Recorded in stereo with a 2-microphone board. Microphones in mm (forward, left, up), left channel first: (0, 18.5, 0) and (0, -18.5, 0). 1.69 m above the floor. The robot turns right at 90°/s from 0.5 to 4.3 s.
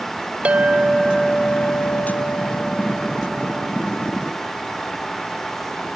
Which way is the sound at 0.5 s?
55° right.